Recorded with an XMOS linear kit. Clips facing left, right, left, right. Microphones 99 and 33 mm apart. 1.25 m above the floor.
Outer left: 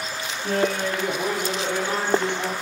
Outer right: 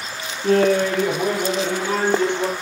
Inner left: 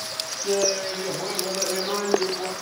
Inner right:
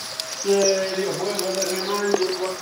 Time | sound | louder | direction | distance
0.4 | laughter | outer right 7 dB, inner right 5 dB | 80° right | 0.8 m